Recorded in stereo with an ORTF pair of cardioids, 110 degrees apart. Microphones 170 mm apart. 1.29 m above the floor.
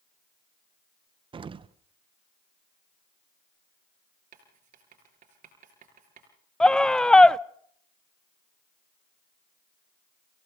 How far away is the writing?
About 4.5 m.